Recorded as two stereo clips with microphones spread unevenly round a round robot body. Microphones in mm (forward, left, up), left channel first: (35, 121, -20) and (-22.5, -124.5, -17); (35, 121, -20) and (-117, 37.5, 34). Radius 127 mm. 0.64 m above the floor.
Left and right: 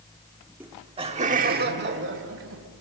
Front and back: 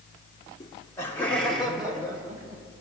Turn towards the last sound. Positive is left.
turn(degrees=-65)